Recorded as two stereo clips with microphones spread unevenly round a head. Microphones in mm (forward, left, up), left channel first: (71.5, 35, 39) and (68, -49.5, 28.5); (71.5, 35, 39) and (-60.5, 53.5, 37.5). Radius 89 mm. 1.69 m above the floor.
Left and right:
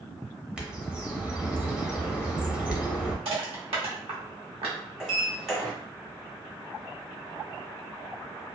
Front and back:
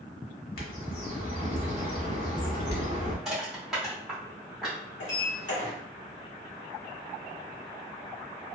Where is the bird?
15° right, 0.9 m.